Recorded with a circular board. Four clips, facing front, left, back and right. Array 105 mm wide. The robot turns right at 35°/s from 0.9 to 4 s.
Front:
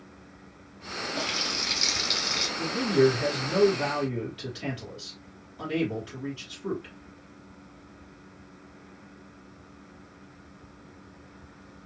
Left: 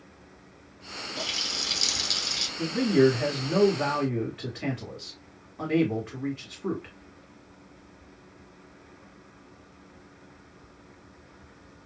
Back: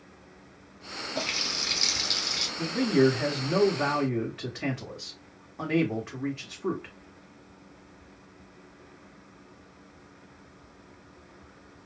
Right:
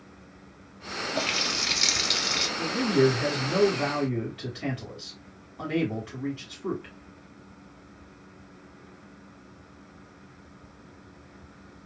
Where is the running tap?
110° right, 0.5 m; by 2.5 s 65° right, 0.5 m.